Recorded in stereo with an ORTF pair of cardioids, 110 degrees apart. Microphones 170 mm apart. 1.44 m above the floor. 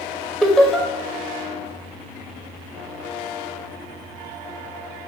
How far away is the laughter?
About 0.8 m.